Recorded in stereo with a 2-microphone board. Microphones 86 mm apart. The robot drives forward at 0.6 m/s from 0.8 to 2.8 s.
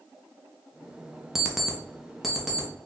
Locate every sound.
1.4 s an alarm clock: 5° right (ahead or behind), 0.6 m; by 2.7 s centre (ahead or behind), 1.2 m